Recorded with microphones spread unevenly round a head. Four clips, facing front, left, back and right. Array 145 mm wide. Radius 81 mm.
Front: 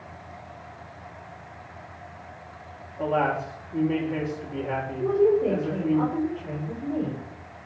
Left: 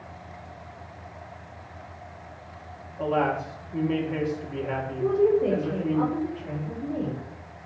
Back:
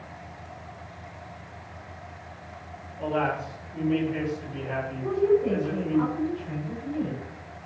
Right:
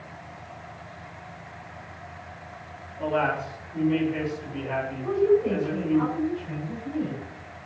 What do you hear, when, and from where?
3.0 s a man speaking: 20° left, 8 m
5.0 s a woman speaking: 35° left, 9 m